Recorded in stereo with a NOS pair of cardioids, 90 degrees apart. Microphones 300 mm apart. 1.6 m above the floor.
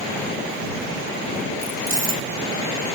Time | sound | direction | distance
1.6 | keys jangling | 25° right | ?